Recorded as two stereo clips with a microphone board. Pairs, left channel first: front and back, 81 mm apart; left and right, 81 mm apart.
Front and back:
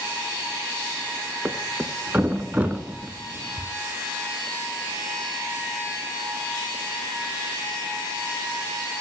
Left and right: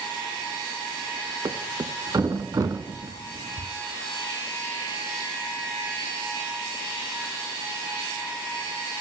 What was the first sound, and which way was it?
A thud, 110° right.